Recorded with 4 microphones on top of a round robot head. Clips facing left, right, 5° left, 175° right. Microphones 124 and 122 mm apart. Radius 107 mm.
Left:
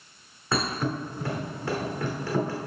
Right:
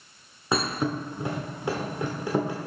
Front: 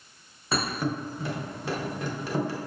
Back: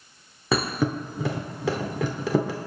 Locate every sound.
0.5 s a thud: 165° right, 0.8 m